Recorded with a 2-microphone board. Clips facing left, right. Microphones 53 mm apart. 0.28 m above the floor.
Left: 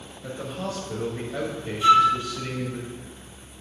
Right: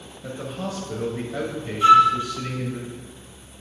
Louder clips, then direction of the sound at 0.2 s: Right 1 dB; centre (ahead or behind).